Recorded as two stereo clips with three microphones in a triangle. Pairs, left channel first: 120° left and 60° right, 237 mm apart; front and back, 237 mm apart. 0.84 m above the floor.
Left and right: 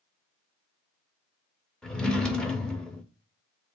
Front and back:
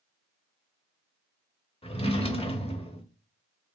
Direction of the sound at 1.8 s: 35° left.